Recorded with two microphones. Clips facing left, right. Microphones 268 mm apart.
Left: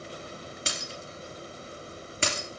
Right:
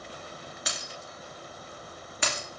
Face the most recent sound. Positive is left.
turn(degrees=30)  # may be behind; listen again after turning